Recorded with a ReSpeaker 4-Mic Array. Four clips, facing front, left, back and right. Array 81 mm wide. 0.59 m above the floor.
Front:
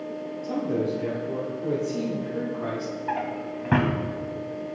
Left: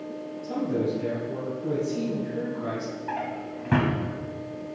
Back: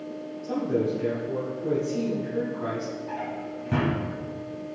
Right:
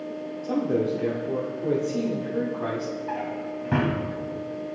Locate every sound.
0.4 s a man speaking: 90° right, 1.1 m
3.1 s a drawer: 10° left, 0.9 m